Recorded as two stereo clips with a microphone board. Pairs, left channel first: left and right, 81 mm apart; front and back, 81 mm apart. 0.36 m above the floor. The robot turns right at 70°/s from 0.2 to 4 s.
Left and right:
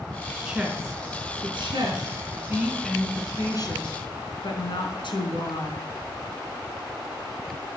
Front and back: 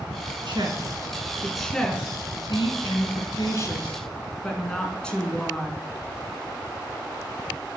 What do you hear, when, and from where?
0.5 s a woman speaking: 170° right, 4 m; by 5.9 s 80° left, 4 m